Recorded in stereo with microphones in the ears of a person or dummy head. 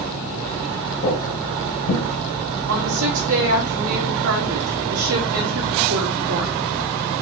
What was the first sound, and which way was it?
Footsteps, 35° left (ahead or behind).